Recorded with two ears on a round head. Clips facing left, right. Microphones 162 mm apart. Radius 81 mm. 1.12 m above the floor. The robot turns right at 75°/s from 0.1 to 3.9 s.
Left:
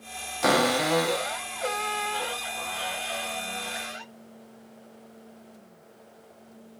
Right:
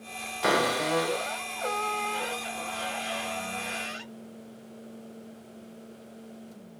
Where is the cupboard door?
65° left, 2.5 m; by 4.0 s 35° right, 2.5 m.